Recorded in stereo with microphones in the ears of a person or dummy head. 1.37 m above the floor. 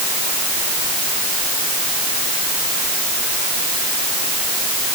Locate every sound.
Only background noise.